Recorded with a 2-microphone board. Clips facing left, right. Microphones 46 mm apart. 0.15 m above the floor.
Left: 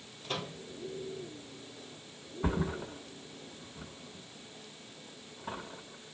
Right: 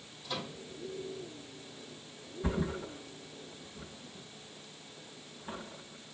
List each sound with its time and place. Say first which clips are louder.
0.2 s a microwave: left 2 dB; 70° left (ahead or behind), 2.5 m
2.4 s a thud: left 1 dB; 85° left, 3.5 m